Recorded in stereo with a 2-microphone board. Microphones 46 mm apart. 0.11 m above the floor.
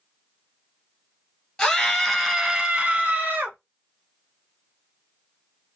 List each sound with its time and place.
1.6 s a scream: 15° left (ahead or behind), 1.5 m; by 3.6 s 40° right (ahead or behind), 1.6 m